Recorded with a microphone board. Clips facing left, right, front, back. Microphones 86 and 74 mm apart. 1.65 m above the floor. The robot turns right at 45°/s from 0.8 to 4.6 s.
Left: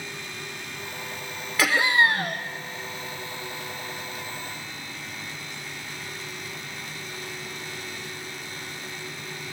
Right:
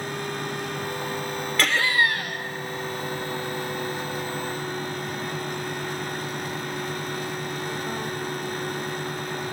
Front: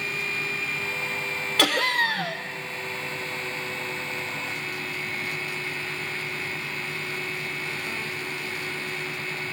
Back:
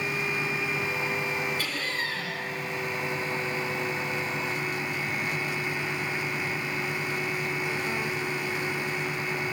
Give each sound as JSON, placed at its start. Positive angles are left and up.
{"t": 1.6, "sound": "laughter", "azimuth_deg": 5, "distance_m": 1.3}